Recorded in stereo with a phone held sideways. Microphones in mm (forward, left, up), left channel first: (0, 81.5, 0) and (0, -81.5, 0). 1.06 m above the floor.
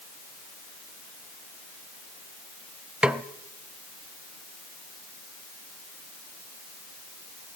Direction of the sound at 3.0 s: 5° right (ahead or behind).